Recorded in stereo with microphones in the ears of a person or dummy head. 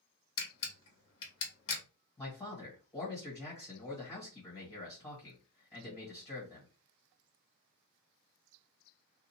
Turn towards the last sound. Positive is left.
turn(degrees=10)  # may be behind; listen again after turning